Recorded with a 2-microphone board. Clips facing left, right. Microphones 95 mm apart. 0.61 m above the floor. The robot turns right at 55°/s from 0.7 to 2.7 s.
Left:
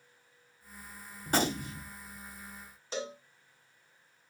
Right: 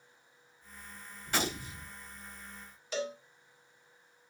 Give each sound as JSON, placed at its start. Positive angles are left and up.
{"t": 1.3, "sound": "a gunshot", "azimuth_deg": 45, "distance_m": 1.0}
{"t": 2.9, "sound": "a cowbell", "side_deg": 25, "distance_m": 1.7}